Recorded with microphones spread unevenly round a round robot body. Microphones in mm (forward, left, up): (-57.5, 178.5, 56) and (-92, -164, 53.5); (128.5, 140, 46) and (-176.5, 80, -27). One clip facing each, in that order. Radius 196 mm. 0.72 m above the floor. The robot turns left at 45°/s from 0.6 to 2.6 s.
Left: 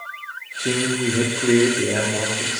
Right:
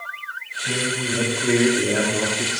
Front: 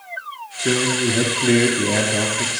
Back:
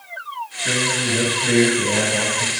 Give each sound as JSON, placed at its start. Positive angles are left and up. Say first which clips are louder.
{"t": 0.6, "sound": "a man speaking", "louder": "left 6 dB, front 5 dB", "azimuth_deg": 50, "distance_m": 2.0}